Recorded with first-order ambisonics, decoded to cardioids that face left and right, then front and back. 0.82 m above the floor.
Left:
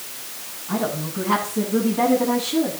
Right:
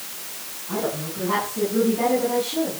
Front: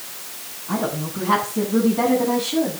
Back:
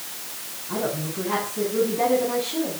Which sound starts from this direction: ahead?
A woman speaking, at 0.7 s.